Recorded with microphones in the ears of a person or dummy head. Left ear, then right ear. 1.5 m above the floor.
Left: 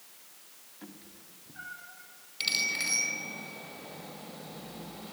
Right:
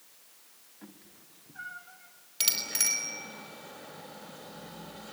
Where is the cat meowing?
Centre (ahead or behind), 2 m; by 2.1 s 40° right (ahead or behind), 3 m.